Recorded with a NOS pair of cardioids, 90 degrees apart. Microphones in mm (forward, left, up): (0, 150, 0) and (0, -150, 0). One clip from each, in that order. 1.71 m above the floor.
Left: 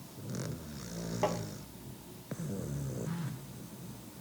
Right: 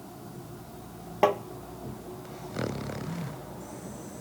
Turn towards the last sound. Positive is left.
turn(degrees=-10)